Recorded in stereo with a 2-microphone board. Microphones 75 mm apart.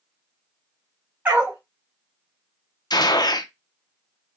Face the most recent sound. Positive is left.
turn(degrees=65)  # may be behind; listen again after turning